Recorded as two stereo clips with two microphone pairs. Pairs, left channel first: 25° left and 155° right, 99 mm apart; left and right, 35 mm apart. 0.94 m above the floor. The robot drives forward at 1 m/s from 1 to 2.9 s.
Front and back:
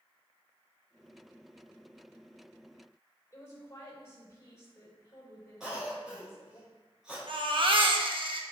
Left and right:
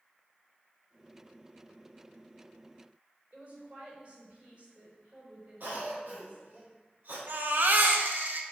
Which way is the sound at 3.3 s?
40° right.